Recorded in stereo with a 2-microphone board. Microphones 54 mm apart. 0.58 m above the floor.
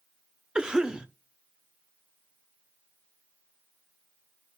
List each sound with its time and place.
0.6 s a cough: 15° right (ahead or behind), 0.8 m